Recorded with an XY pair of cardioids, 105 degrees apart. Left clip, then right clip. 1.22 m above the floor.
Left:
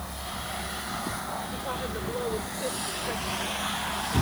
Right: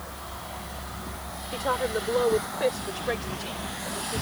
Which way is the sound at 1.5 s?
60° right.